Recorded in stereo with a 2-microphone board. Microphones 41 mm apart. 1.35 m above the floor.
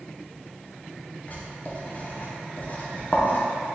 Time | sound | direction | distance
1.3 | writing | 40° left (ahead or behind) | 0.7 m